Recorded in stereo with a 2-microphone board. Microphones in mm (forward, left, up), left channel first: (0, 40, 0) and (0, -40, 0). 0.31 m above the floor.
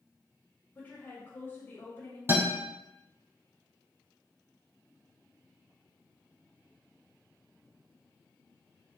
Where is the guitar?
30° right (ahead or behind), 2.0 m.